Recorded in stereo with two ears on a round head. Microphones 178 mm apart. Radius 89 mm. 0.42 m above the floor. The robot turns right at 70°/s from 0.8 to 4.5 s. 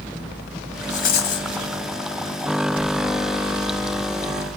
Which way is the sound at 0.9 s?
40° left.